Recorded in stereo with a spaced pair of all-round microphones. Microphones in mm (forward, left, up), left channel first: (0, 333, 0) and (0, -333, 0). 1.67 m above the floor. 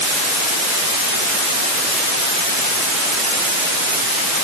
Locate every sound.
Only background noise.